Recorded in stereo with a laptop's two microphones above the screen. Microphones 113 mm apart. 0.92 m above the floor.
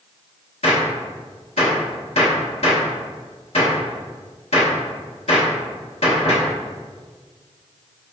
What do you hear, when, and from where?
0.6 s a gunshot: 65° left (ahead or behind), 1.2 m